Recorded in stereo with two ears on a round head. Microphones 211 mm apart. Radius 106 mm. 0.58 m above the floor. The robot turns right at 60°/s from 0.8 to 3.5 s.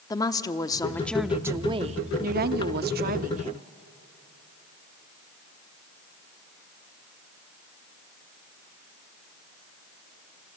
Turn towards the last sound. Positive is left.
turn(degrees=-40)